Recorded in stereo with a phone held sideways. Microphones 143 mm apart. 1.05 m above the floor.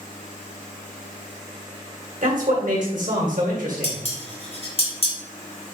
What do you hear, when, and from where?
2.2 s a man speaking: 65° right (ahead or behind), 1.3 m
3.8 s dishes clattering: 45° left (ahead or behind), 1.1 m